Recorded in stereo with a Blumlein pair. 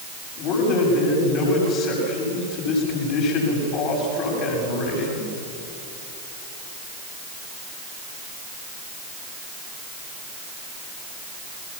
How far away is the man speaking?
About 8 m.